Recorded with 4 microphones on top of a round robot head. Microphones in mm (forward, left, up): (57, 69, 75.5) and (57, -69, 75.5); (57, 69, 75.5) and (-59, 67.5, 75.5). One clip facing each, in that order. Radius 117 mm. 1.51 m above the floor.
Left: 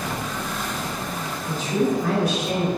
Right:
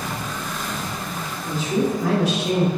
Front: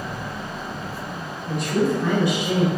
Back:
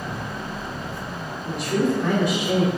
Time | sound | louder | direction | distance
1.5 | a man speaking | even, front 1 dB | 95° right | 1.6 m